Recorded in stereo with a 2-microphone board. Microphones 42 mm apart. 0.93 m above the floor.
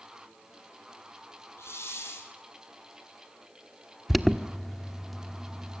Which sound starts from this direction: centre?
An alarm, at 4.1 s.